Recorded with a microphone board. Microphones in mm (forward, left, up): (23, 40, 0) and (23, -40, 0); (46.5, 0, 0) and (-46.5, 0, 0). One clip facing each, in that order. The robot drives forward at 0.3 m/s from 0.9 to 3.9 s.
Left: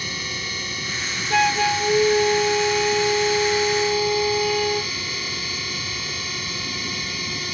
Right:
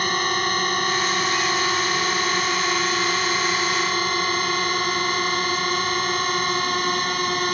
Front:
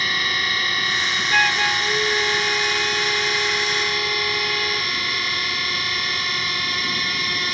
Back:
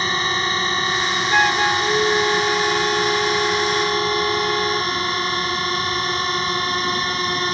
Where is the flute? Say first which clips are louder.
Left 3 dB, back 3 dB; 105° left; by 4.9 s 110° left.